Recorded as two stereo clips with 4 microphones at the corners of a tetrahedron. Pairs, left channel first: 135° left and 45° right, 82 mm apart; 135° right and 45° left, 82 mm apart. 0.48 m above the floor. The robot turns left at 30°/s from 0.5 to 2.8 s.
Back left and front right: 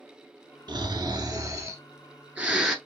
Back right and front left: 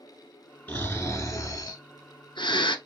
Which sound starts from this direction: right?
Snoring, at 0.7 s.